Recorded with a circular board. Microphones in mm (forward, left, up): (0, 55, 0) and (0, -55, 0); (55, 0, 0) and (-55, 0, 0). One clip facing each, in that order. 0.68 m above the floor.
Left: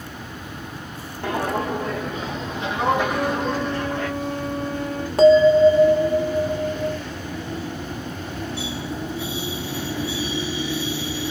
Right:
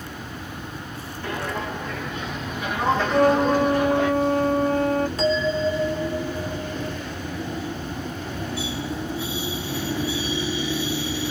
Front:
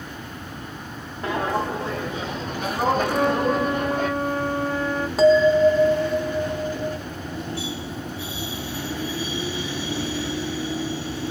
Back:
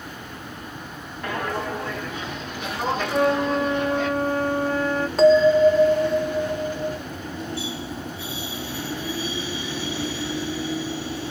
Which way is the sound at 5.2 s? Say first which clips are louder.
Left 10 dB, back 1 dB; 80° left.